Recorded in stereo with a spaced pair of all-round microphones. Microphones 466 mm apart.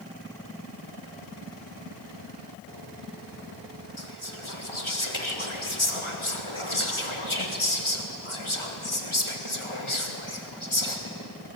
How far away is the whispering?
About 2.5 m.